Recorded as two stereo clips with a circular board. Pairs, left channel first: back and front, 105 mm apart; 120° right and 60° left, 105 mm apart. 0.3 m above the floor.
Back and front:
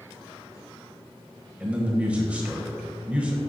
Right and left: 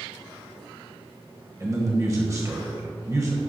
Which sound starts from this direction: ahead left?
A man speaking, at 1.6 s.